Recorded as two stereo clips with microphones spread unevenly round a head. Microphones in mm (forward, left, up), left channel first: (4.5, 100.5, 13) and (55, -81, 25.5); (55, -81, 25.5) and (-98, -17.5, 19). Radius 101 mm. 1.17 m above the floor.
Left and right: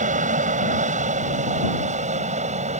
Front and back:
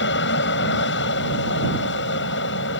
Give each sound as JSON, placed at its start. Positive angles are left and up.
{"t": 0.0, "sound": "an aircraft", "azimuth_deg": -25}